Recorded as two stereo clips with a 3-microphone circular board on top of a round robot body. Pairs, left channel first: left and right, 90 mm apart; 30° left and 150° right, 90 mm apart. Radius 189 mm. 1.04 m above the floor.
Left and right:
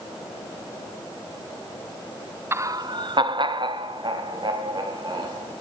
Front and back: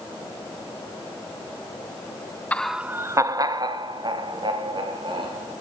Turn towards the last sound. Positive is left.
turn(degrees=-125)